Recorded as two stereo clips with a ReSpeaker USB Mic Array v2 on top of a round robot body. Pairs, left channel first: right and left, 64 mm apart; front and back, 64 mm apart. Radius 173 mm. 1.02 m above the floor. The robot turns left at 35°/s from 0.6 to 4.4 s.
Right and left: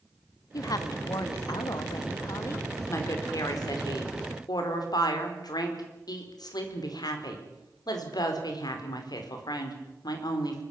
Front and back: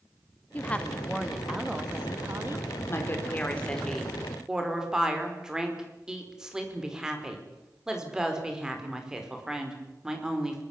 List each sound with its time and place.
0.5 s a woman speaking: 65° right, 2.5 m; by 2.7 s 135° right, 2.5 m
2.9 s a woman speaking: 45° right, 5 m; by 10.6 s 100° right, 5 m